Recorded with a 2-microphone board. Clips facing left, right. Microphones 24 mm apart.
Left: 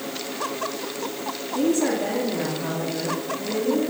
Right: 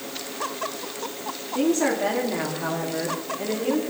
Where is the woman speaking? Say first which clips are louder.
Even; 25° right (ahead or behind), 3 m; by 3.8 s 40° right (ahead or behind), 4 m.